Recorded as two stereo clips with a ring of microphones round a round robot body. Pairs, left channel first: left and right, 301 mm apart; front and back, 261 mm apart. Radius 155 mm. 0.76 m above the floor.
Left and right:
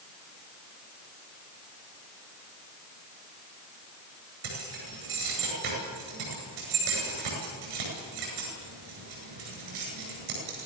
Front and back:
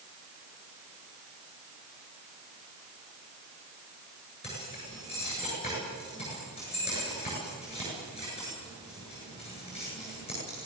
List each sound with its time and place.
4.4 s keys jangling: 70° right, 9 m